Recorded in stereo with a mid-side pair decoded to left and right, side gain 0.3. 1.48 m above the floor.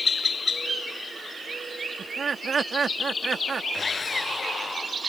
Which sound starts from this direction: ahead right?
Laughter, at 2.0 s.